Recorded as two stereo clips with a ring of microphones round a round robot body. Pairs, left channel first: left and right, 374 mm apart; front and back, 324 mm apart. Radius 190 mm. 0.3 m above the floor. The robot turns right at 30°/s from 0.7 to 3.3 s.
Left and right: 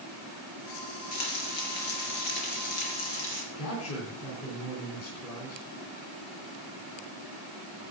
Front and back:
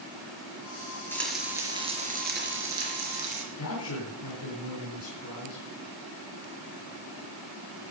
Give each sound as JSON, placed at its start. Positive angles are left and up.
{"t": 1.1, "sound": "frying", "azimuth_deg": 85, "distance_m": 4.0}
{"t": 3.5, "sound": "a man speaking", "azimuth_deg": 40, "distance_m": 3.5}